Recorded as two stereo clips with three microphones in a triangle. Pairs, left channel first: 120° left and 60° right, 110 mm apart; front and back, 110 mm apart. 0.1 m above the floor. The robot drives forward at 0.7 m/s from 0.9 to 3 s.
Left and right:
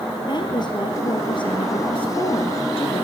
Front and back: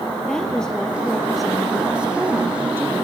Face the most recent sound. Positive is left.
turn(degrees=115)